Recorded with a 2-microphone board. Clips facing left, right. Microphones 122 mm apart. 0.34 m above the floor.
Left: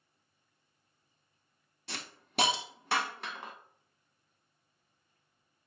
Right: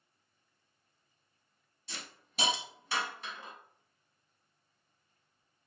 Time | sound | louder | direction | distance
1.9 | a hiss | left 4 dB | 65° left (ahead or behind) | 0.6 m